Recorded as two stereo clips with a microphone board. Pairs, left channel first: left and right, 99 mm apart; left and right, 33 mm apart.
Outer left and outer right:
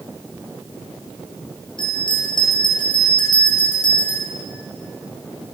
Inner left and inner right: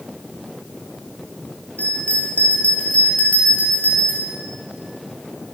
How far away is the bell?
About 5 m.